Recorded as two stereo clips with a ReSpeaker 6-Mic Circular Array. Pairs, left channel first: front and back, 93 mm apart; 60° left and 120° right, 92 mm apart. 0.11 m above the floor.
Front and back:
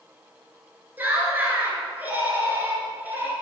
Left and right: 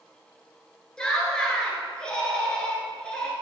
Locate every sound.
1.0 s laughter: 130° left, 1.5 m